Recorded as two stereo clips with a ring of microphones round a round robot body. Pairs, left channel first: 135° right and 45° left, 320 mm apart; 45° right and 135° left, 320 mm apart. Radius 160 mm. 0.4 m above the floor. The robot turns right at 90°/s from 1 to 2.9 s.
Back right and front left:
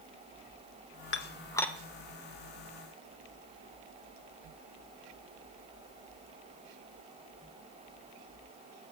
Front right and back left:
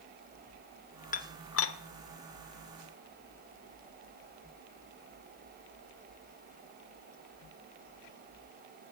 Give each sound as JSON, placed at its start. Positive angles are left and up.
{"t": 1.1, "sound": "dishes clattering", "azimuth_deg": -100, "distance_m": 0.8}